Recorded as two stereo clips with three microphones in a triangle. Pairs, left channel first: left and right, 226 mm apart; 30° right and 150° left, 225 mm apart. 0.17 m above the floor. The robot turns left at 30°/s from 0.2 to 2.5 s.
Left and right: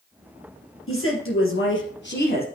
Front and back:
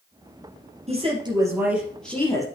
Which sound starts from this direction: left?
A woman speaking, at 0.9 s.